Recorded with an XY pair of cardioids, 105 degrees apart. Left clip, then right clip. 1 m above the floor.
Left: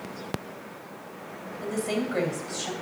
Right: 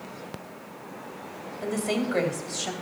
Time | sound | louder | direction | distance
1.6 | a woman speaking | right 1 dB | 25° right | 2.5 m